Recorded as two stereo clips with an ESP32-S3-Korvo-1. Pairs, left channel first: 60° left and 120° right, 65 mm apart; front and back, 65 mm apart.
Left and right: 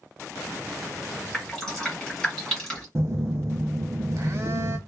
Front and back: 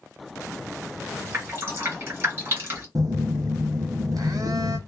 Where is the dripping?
140° left, 1.8 m.